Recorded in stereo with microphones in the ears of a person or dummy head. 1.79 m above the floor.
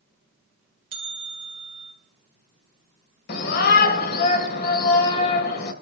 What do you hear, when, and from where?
0.9 s a bell: 30° right (ahead or behind), 1.7 m
3.3 s a shout: 45° left (ahead or behind), 2.5 m